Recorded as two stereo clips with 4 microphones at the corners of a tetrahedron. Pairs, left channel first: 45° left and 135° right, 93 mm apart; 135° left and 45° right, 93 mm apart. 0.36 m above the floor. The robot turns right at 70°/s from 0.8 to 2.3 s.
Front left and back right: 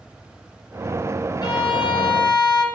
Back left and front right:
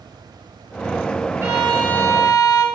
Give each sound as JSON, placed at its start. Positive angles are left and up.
{"t": 1.4, "sound": "a violin", "azimuth_deg": 15, "distance_m": 1.4}